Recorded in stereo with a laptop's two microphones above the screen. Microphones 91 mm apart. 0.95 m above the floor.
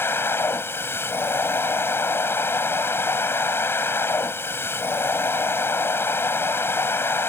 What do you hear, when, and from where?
0.0 s a machine running: 25° left (ahead or behind)